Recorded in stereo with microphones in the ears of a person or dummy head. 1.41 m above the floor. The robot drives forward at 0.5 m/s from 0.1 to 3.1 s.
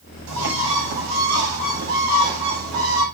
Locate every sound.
0.3 s a bird: 75° right (ahead or behind), 7.5 m; by 3.0 s 85° right, 7.5 m